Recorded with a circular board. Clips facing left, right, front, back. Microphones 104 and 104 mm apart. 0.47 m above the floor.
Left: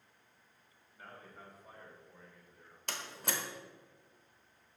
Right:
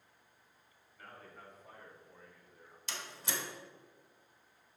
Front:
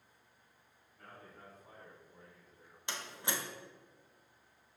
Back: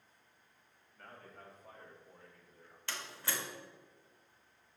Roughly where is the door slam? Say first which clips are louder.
Left 2 dB, front 2 dB; left.